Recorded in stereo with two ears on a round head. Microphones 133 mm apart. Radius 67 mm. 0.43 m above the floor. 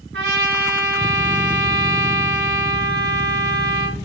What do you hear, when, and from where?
0.1 s a trumpet: 85° right, 2.5 m